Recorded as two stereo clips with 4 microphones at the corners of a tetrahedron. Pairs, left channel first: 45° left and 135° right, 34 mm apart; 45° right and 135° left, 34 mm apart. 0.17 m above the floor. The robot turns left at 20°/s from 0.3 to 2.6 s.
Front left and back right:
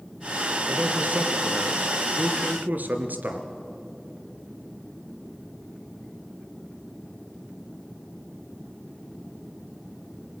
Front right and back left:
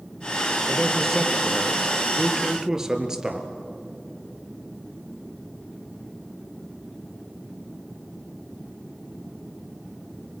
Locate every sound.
0.7 s a man speaking: 110° right, 2.5 m; by 3.5 s 150° right, 2.5 m